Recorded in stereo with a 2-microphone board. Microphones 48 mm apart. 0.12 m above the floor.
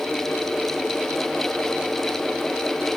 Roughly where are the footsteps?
I don't hear footsteps.